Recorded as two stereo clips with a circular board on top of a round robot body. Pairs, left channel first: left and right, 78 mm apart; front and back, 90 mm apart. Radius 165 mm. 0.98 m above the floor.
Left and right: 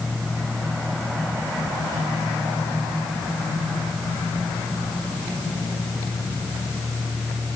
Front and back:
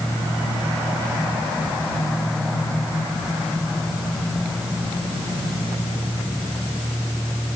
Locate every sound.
Only background noise.